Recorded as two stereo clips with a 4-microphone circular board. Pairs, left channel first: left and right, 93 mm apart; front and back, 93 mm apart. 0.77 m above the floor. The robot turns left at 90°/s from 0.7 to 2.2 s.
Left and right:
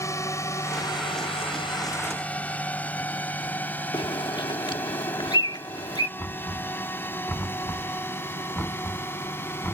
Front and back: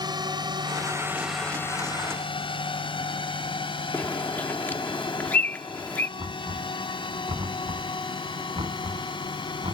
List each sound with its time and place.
0.0 s a drone: 145° left; by 9.7 s 25° left
3.9 s a bird: 70° left
6.2 s knocking: 165° left